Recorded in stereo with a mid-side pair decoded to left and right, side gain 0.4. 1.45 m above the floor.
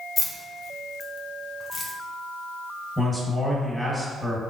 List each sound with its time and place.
0.2 s keys jangling: 60° left, 1.1 m
3.0 s a man speaking: 10° left, 2 m